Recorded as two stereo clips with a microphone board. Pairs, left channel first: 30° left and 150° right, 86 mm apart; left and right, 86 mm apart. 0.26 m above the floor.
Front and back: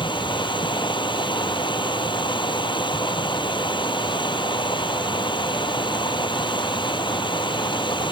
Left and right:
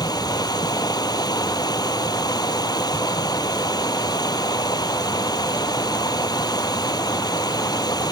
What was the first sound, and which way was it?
Running water, 55° left.